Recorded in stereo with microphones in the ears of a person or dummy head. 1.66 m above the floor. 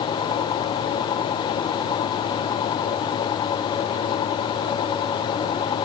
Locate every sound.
Only background noise.